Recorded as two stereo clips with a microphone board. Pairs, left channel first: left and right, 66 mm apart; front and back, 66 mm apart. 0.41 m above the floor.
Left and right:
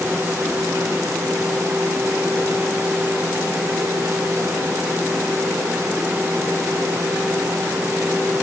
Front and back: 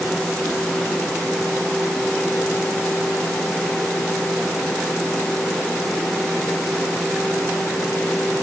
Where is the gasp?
No gasp in this recording.